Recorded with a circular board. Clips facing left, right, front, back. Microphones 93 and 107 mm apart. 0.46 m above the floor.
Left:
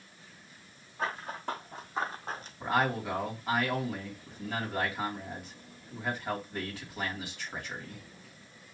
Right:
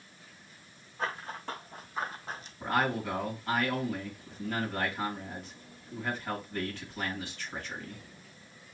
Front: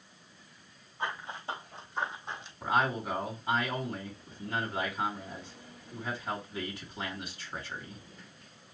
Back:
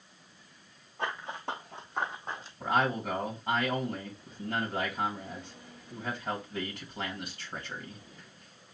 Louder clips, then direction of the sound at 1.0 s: Left 1 dB, back 2 dB; 170° left.